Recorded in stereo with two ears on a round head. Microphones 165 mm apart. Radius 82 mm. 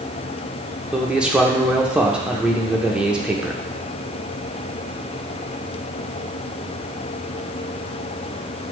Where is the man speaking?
5° right (ahead or behind), 0.8 m.